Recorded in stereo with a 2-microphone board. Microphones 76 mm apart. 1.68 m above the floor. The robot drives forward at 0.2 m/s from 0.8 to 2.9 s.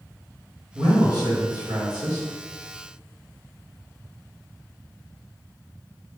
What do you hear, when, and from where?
0.8 s a man speaking: 65° right (ahead or behind), 1.7 m; by 2.3 s 60° right (ahead or behind), 1.8 m